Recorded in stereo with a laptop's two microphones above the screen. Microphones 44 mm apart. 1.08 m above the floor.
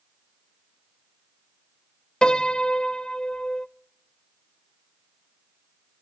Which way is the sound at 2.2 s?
15° left (ahead or behind).